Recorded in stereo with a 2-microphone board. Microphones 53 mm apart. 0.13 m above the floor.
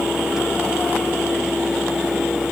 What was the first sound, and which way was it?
Only background noise.